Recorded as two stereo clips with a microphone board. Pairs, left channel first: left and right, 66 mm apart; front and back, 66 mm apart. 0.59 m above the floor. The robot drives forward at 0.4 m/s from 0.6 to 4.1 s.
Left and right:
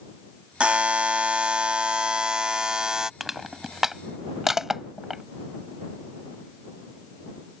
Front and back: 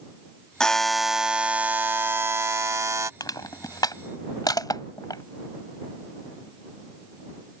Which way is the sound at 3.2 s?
5° right.